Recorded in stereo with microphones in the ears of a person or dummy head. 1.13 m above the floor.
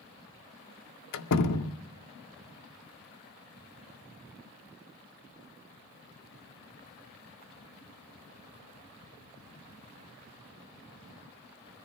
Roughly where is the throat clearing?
No throat clearing in this recording.